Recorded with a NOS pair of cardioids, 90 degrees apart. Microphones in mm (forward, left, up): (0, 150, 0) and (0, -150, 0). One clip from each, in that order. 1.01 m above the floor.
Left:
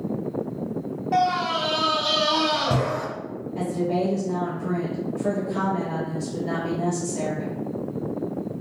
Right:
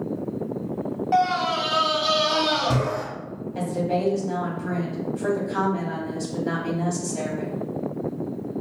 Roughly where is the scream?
Ahead.